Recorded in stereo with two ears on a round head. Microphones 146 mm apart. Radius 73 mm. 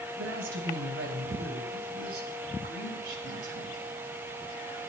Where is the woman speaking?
85° right, 3.5 m; by 3.8 s 55° right (ahead or behind), 5 m.